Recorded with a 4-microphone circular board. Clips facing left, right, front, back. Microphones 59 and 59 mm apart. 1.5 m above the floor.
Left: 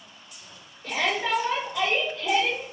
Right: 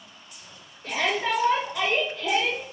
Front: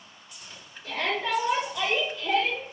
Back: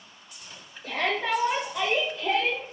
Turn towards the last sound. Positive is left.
turn(degrees=-145)